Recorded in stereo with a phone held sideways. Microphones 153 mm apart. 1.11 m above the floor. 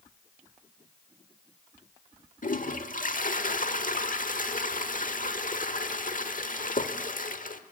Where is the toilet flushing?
55° left (ahead or behind), 1.2 m.